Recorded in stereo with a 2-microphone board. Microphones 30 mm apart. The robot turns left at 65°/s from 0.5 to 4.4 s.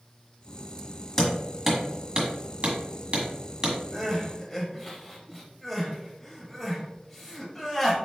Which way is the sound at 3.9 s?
10° right (ahead or behind).